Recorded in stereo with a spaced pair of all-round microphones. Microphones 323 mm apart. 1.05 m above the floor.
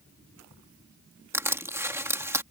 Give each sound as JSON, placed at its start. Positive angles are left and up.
{"t": 1.3, "sound": "crushing", "side_deg": -10}